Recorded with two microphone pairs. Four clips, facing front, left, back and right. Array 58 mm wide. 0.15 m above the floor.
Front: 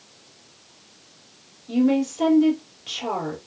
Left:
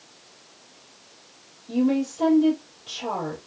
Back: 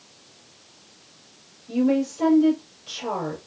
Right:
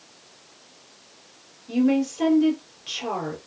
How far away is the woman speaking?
About 3.5 m.